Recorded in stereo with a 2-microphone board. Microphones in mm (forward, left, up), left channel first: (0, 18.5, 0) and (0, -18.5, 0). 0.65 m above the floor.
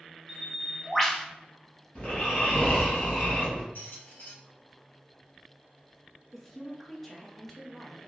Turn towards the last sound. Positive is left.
turn(degrees=5)  # may be behind; listen again after turning